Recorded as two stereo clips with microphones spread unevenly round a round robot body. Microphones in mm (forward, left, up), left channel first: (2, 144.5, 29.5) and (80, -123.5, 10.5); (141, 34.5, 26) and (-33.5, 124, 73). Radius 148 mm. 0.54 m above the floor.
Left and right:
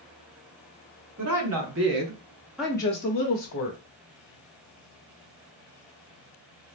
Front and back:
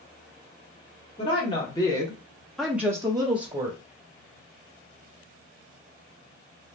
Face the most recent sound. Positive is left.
turn(degrees=85)